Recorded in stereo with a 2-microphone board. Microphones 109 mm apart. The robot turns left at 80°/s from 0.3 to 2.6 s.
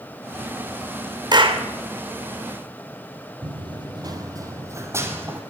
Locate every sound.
1.3 s a clap: 40° right (ahead or behind), 2 m; by 1.6 s 65° right (ahead or behind), 2 m
3.4 s running footsteps: 50° right (ahead or behind), 1.7 m; by 5.4 s 20° right (ahead or behind), 3 m